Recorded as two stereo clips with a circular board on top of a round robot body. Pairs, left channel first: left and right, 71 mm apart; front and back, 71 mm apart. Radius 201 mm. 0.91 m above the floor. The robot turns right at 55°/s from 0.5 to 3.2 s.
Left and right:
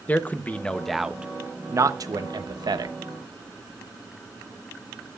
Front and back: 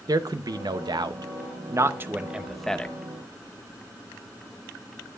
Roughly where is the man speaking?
Behind left.